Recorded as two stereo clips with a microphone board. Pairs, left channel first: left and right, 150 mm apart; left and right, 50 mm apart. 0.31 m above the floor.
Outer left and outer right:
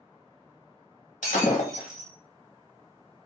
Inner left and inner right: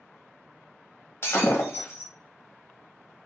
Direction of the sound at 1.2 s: 55° left (ahead or behind).